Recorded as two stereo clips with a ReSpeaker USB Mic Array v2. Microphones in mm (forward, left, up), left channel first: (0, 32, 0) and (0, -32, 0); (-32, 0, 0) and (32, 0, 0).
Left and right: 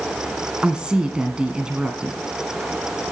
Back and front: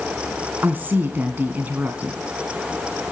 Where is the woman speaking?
25° right, 1.6 m.